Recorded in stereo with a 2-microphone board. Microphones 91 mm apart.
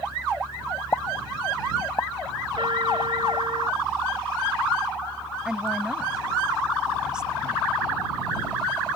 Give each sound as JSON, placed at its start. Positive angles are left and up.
{"t": 0.9, "sound": "a pop", "side_deg": 35}
{"t": 2.6, "sound": "a trumpet", "side_deg": -60}
{"t": 5.5, "sound": "a woman speaking", "side_deg": -10}